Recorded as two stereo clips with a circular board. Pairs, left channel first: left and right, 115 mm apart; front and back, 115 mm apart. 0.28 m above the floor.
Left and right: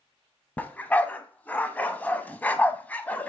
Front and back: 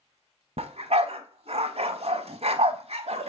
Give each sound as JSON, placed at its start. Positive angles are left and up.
{"t": 0.6, "sound": "a dog barking", "azimuth_deg": 165, "distance_m": 0.7}